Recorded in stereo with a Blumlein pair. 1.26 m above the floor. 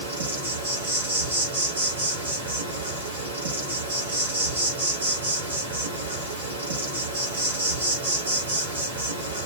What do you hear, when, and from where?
0.0 s an insect: 70° right, 1.5 m